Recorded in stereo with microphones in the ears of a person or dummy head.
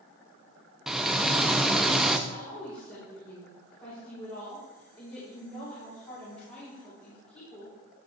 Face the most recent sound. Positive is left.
turn(degrees=20)  # may be behind; listen again after turning